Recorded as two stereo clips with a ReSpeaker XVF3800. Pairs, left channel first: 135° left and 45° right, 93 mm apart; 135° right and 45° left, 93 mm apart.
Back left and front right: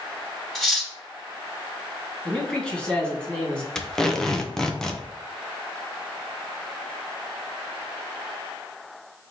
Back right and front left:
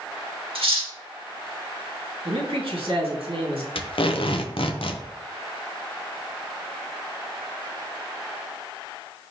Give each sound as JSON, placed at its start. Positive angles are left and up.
{"t": 0.6, "sound": "cutlery clinking", "azimuth_deg": 45, "distance_m": 1.5}
{"t": 2.2, "sound": "a man speaking", "azimuth_deg": 55, "distance_m": 2.5}
{"t": 3.8, "sound": "tape being pulled", "azimuth_deg": -140, "distance_m": 0.9}